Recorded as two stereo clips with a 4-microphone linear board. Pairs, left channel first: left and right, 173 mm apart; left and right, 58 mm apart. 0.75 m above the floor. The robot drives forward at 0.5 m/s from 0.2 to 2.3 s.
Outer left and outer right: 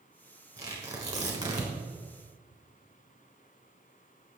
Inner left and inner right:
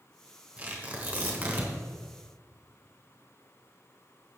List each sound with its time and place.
0.6 s tearing paper: 20° right (ahead or behind), 4 m; by 1.7 s 25° right (ahead or behind), 3.5 m